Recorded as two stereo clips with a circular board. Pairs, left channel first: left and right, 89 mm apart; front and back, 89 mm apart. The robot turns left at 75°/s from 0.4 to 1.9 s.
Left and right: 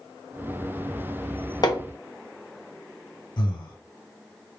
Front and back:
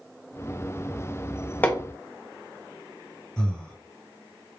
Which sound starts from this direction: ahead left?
Hammering, at 1.6 s.